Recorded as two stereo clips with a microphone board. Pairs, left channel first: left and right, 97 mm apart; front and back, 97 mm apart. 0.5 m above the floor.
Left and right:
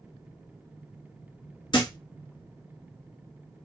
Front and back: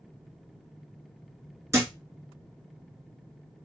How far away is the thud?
About 1.0 m.